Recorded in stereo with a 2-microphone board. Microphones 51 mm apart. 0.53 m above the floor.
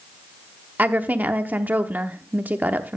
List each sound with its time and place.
0.8 s a woman speaking: 35° right (ahead or behind), 0.8 m